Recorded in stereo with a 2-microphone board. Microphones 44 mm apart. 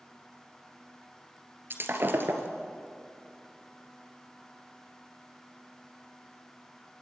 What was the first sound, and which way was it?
Breaking glass, 55° right (ahead or behind).